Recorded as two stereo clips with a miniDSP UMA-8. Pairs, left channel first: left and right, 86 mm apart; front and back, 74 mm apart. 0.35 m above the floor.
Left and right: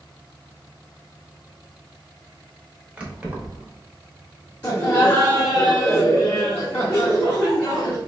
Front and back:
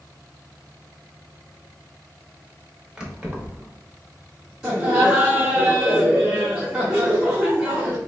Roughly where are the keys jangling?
Behind right.